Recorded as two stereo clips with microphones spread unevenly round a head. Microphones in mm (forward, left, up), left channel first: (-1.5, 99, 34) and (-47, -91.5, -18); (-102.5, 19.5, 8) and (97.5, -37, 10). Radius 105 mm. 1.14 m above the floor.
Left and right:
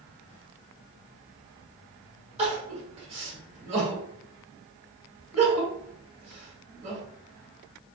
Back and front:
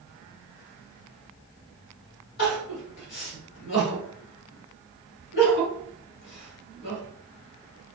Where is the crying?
160° right, 1.8 m.